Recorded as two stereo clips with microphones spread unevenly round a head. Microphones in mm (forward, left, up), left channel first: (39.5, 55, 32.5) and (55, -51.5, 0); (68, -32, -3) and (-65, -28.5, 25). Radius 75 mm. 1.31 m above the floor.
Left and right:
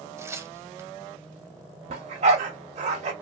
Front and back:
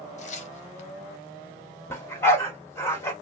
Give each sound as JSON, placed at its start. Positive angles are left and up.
{"t": 0.2, "sound": "tearing paper", "azimuth_deg": -25, "distance_m": 0.7}
{"t": 1.9, "sound": "a dog barking", "azimuth_deg": -75, "distance_m": 1.4}